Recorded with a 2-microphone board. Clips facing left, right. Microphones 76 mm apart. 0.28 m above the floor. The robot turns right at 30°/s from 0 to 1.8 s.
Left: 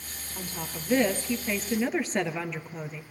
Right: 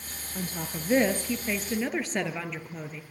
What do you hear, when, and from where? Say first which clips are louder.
0.3 s a woman speaking: right 3 dB; 40° right, 4 m; by 3.0 s straight ahead, 4 m